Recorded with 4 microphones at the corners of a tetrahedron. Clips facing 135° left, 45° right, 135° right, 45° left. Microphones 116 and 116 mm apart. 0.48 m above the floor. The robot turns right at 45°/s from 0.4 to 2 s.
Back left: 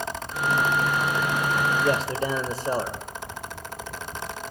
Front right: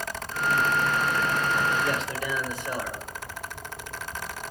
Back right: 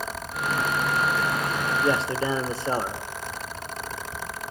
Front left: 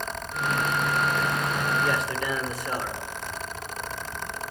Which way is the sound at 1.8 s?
165° left.